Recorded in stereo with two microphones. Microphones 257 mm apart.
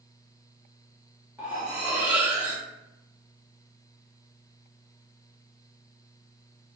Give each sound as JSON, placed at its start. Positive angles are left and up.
{"t": 1.4, "sound": "cutlery clinking", "side_deg": -5, "distance_m": 0.9}